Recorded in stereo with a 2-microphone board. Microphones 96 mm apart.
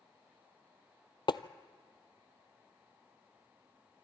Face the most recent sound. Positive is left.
turn(degrees=55)  # may be behind; listen again after turning